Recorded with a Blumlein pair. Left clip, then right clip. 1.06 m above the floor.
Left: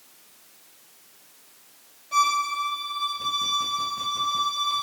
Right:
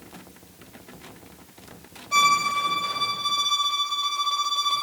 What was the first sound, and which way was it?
A violin, 20° right.